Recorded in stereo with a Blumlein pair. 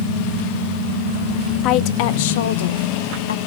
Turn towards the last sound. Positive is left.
turn(degrees=65)